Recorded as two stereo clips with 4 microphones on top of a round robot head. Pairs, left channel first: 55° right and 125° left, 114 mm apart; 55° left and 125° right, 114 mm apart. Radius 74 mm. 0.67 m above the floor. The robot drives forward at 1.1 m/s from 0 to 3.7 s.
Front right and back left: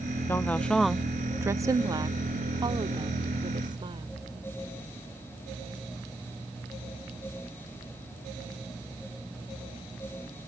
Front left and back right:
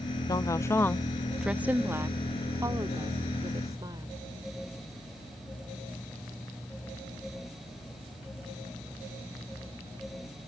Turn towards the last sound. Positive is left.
turn(degrees=175)